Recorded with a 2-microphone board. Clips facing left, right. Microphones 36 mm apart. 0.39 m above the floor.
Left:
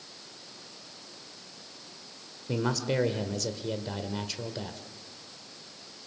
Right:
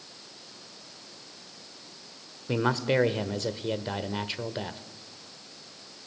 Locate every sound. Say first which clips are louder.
2.5 s a man speaking: right 4 dB; 30° right (ahead or behind), 1.3 m